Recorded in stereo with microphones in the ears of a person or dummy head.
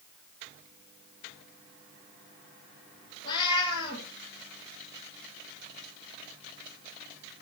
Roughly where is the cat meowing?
Left.